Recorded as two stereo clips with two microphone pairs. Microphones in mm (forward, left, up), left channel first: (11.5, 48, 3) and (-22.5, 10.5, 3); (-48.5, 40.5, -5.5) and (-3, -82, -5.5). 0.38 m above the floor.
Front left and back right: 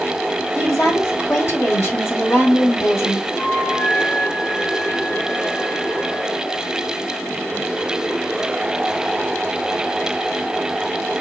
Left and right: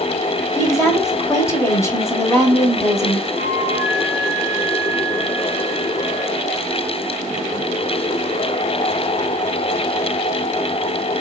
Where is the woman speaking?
50° left, 2 m.